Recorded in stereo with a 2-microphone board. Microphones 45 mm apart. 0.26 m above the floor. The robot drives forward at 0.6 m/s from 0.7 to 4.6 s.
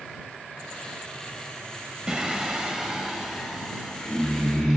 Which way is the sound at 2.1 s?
20° right (ahead or behind).